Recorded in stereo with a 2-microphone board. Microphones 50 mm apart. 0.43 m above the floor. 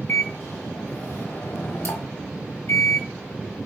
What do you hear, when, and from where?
0.1 s a microwave: 55° left (ahead or behind), 1.4 m